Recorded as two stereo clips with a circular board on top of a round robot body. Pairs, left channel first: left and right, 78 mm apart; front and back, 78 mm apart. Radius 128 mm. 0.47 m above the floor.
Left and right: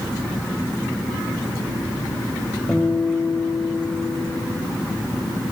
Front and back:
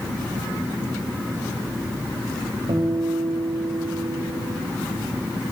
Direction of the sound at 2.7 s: Straight behind.